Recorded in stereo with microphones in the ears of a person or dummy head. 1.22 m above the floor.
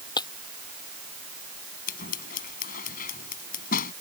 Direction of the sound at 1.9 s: 50° left (ahead or behind).